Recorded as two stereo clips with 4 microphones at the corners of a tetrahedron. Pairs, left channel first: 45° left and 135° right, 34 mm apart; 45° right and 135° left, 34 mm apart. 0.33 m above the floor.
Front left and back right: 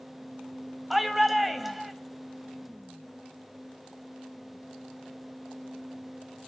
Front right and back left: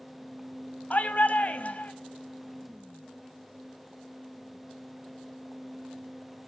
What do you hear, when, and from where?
0.9 s a shout: 50° right, 2 m